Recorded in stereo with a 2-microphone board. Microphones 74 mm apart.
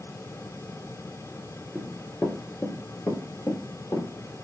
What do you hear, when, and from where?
1.8 s running footsteps: centre (ahead or behind), 0.6 m; by 4.3 s 50° left (ahead or behind), 1.3 m